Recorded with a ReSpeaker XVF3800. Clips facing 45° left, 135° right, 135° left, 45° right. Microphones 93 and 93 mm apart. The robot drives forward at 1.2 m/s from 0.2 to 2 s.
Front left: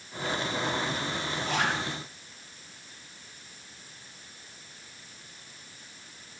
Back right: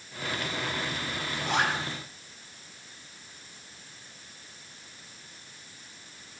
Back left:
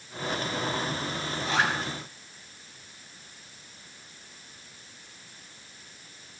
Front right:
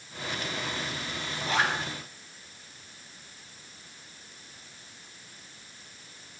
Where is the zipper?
160° right, 4.5 m.